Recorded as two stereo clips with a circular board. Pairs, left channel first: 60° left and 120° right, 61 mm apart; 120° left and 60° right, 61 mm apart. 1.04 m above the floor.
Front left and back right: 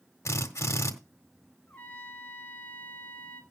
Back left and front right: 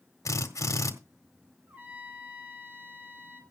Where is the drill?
90° left, 1.8 m.